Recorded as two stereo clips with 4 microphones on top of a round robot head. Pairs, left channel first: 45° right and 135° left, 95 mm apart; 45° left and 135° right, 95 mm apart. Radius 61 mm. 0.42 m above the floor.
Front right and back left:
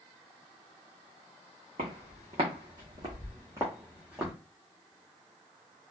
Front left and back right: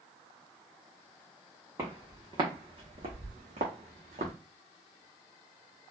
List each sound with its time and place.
1.8 s footsteps: 160° left, 1.8 m; by 4.3 s 140° right, 1.6 m